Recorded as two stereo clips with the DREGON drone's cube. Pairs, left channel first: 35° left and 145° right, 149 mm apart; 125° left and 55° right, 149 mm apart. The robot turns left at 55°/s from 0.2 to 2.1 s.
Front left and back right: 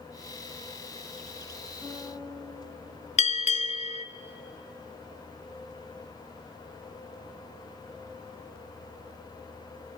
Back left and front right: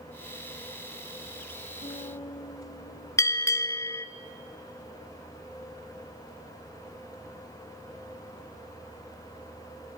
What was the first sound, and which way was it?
A guitar, 115° left.